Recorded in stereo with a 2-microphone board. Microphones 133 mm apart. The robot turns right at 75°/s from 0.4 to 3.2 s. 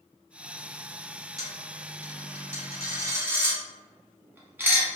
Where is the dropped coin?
25° right (ahead or behind), 1.0 m; by 4.9 s 15° right (ahead or behind), 1.0 m.